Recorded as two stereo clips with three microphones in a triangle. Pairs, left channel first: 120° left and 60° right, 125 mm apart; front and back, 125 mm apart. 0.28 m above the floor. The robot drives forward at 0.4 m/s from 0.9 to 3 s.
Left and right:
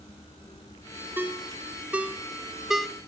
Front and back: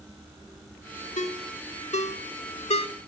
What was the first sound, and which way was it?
A ringtone, 15° left.